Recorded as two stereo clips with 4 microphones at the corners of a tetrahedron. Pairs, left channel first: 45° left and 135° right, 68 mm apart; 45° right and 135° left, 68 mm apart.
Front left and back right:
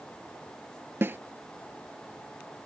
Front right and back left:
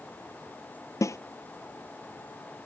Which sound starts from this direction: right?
A snare drum, at 1.0 s.